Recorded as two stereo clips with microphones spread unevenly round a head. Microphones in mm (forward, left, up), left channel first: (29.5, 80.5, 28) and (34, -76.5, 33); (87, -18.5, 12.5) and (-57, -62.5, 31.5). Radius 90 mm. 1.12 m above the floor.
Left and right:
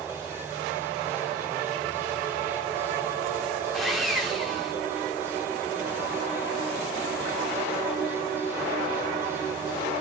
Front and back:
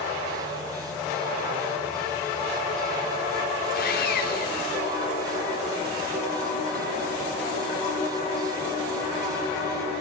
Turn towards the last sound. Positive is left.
turn(degrees=5)